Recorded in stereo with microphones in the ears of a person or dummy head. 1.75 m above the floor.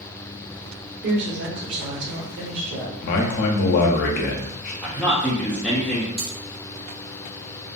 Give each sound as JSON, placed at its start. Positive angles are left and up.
{"t": 1.0, "sound": "a woman speaking", "side_deg": -55, "distance_m": 1.3}
{"t": 3.0, "sound": "a man speaking", "side_deg": 50, "distance_m": 0.5}
{"t": 4.8, "sound": "a man speaking", "side_deg": 0, "distance_m": 0.5}
{"t": 6.2, "sound": "cutlery clinking", "side_deg": -10, "distance_m": 0.8}